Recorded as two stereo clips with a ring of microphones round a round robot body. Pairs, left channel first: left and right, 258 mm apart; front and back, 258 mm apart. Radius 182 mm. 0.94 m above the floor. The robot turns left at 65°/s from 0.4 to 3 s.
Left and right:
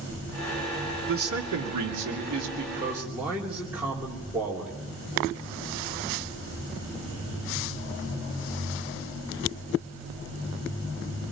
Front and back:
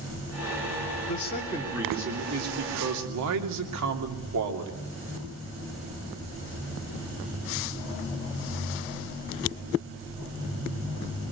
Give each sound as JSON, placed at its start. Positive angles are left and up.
{"t": 1.1, "sound": "a man speaking", "azimuth_deg": -50, "distance_m": 2.5}